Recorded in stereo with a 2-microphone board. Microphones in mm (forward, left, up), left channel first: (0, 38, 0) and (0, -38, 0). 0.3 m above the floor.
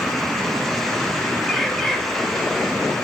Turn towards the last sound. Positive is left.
turn(degrees=5)  # may be behind; listen again after turning